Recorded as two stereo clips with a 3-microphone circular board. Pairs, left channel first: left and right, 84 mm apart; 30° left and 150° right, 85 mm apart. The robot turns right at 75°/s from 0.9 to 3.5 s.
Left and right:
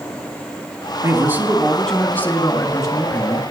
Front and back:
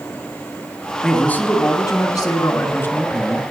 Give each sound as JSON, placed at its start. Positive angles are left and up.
{"t": 1.0, "sound": "a man speaking", "azimuth_deg": -55, "distance_m": 2.0}